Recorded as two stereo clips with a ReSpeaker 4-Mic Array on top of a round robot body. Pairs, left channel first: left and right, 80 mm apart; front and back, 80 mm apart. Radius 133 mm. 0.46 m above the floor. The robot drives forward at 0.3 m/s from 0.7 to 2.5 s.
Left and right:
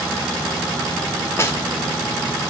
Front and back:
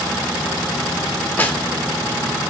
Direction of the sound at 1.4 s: 50° left.